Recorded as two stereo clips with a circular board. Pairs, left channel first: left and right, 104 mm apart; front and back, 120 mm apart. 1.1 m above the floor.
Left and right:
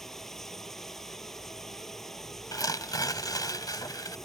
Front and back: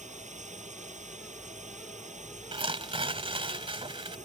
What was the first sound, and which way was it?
Running water, 175° left.